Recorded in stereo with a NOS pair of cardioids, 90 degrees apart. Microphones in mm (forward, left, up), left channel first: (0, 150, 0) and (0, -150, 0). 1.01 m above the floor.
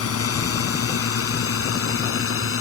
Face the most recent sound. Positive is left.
turn(degrees=45)